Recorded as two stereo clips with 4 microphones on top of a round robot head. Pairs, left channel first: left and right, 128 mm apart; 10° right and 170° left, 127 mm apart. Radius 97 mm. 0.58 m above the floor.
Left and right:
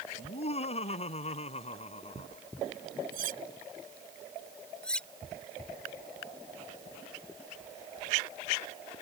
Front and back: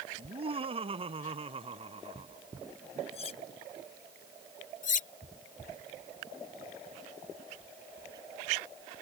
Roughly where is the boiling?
No boiling in this recording.